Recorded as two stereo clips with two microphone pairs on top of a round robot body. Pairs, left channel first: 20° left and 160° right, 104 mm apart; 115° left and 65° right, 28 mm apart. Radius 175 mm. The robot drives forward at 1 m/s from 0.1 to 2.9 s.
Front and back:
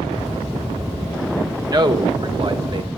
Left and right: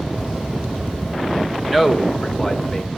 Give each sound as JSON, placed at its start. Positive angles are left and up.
{"t": 1.7, "sound": "a man speaking", "azimuth_deg": -140, "distance_m": 1.9}